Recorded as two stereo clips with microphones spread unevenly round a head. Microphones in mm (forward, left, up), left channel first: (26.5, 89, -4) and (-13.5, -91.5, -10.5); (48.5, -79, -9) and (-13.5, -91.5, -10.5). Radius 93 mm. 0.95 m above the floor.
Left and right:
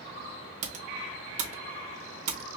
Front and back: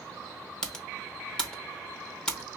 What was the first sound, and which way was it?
Typing on a keyboard, 65° right.